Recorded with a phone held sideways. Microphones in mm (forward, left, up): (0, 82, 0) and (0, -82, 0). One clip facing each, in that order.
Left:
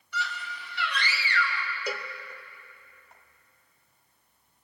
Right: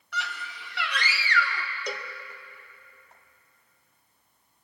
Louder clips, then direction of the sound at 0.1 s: Left 1 dB; 80° right.